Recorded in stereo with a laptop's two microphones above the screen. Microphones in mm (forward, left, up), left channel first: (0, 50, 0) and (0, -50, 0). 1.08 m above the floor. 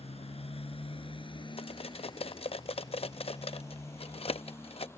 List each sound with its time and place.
0.0 s a motorcycle: 80° left; by 5.0 s 25° left (ahead or behind)
1.6 s cutlery clinking: 70° left (ahead or behind)